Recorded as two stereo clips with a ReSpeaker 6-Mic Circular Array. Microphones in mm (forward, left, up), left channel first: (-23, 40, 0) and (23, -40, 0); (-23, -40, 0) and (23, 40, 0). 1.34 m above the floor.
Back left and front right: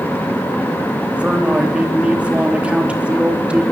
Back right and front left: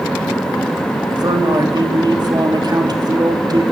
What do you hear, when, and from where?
1.1 s a man speaking: 15° left, 3 m